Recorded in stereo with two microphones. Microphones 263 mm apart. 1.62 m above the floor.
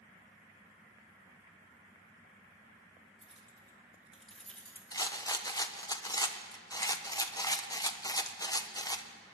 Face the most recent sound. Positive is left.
turn(degrees=15)  # may be behind; listen again after turning